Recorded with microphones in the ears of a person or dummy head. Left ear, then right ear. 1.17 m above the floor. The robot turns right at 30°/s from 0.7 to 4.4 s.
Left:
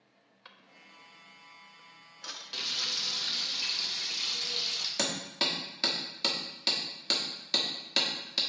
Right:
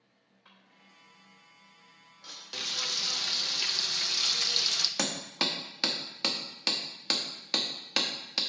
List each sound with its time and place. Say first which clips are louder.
0.5 s a drawer: left 5 dB; 70° left (ahead or behind), 0.8 m; by 2.4 s 35° left (ahead or behind), 0.8 m
2.5 s frying: even; 165° right, 0.6 m; by 4.9 s 110° right, 0.6 m
5.0 s hammering: even; 30° right (ahead or behind), 1.0 m